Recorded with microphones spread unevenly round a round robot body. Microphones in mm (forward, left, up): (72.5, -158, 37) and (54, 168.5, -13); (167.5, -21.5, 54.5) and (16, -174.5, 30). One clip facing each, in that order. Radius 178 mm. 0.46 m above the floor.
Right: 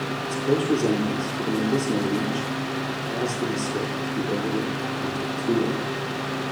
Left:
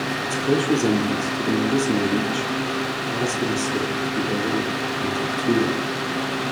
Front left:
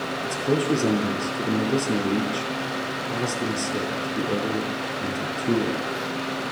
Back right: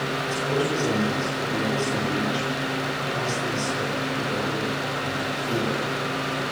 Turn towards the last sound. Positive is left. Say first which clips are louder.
# left 1 dB, front left 3 dB
turn(degrees=25)